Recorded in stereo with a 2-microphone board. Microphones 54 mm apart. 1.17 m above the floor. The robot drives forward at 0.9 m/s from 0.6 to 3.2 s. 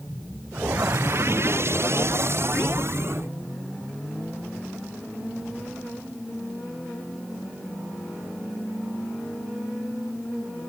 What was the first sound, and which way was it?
Only background noise.